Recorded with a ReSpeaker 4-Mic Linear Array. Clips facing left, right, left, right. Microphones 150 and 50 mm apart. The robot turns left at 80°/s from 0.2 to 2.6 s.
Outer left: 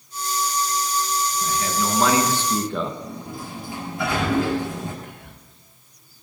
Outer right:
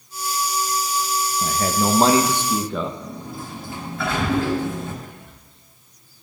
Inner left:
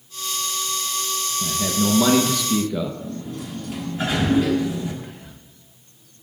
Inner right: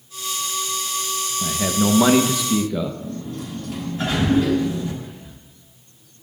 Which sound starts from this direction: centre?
A sliding door, at 3.0 s.